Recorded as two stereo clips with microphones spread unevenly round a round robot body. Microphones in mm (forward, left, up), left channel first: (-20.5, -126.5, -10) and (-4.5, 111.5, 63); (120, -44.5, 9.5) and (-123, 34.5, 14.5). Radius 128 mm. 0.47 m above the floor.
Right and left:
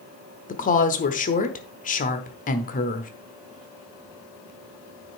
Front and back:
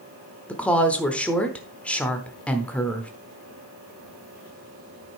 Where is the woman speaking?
100° right, 1.0 m.